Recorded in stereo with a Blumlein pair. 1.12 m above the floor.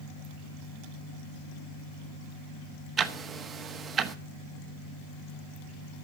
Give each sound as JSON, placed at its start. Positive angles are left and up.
{"t": 3.0, "sound": "ticking", "azimuth_deg": -25, "distance_m": 1.2}